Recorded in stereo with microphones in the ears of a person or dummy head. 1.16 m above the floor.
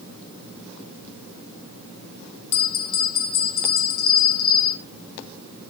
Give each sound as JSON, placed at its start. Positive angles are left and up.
{"t": 2.5, "sound": "a bell", "side_deg": 50, "distance_m": 3.0}